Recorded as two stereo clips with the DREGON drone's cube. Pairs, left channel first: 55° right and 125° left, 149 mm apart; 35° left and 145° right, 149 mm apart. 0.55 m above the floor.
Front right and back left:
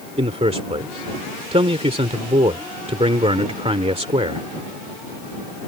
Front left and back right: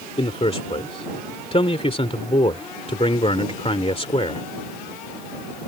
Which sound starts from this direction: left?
A man speaking, at 0.2 s.